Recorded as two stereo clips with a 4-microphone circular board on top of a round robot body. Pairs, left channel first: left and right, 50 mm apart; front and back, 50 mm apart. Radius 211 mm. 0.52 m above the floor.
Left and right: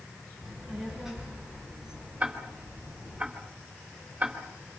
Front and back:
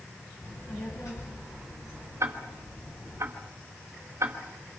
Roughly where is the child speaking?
Ahead.